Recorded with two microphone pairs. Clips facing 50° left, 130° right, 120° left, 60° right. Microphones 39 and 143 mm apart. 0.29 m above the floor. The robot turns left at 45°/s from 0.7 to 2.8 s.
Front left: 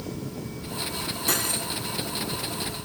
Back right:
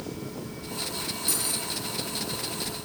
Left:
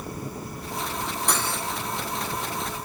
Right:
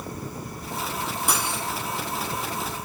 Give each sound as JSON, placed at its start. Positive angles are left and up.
{"t": 1.3, "sound": "cutlery clinking", "azimuth_deg": 20, "distance_m": 1.8}